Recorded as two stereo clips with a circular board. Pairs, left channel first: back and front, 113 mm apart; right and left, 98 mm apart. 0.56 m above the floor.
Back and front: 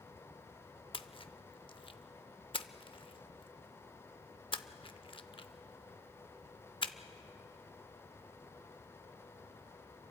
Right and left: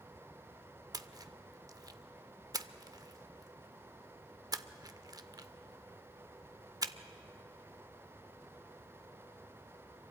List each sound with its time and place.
0.9 s a splash: 140° left, 0.6 m